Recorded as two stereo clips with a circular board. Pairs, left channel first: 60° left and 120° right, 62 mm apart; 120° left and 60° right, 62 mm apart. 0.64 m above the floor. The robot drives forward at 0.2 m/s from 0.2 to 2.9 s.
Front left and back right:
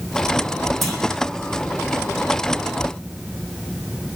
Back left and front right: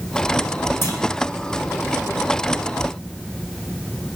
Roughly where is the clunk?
Behind left.